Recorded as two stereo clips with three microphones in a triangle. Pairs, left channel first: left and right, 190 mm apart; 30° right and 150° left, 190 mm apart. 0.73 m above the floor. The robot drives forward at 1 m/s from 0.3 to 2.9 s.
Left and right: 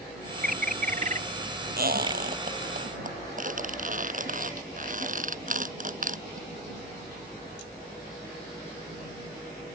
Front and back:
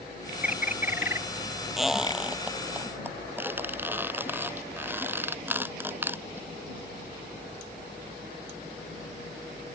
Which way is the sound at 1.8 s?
120° right.